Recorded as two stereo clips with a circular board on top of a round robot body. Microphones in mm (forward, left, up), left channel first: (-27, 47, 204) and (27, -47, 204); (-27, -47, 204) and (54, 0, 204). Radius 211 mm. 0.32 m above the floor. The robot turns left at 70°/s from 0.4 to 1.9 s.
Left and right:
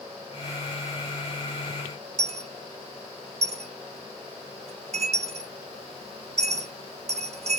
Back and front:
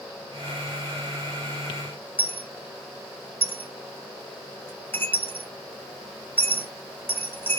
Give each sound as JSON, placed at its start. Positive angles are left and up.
{"t": 2.2, "sound": "a dropped coin", "azimuth_deg": -80, "distance_m": 0.8}